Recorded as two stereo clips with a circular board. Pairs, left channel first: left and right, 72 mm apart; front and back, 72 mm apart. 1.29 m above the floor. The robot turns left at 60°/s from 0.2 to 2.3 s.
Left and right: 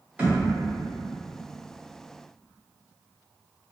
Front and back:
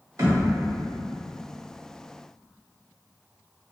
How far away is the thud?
About 1.5 m.